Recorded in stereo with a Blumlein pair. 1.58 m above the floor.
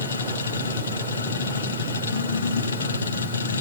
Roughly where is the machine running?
Left.